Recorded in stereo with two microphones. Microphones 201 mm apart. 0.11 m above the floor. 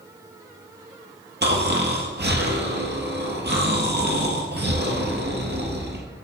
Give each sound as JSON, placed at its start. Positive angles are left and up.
{"t": 1.4, "sound": "snoring", "side_deg": -60, "distance_m": 1.5}